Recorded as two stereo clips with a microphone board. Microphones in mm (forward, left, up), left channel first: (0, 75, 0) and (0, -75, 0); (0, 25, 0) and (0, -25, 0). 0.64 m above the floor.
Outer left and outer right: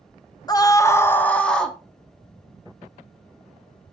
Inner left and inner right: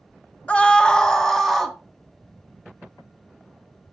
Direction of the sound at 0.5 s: 25° left (ahead or behind).